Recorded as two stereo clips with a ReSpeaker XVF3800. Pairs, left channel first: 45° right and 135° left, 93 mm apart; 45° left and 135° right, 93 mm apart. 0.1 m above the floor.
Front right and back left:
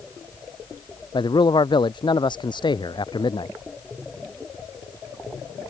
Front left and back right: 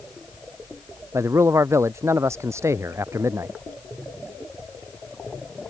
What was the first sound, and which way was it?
A man speaking, 75° right.